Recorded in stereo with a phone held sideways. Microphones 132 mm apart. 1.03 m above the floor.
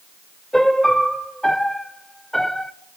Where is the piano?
5° left (ahead or behind), 0.8 m.